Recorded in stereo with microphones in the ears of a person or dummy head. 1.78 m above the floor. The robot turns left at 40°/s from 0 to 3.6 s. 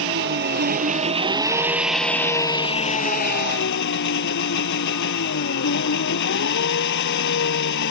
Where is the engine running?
100° right; by 7.9 s 115° left.